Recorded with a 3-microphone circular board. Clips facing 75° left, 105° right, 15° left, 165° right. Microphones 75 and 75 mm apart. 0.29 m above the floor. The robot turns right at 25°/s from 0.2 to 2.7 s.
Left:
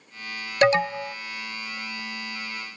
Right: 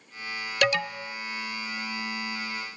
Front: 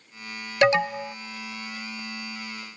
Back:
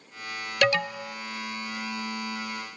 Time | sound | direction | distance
0.6 | an alarm | 55° left | 0.6 m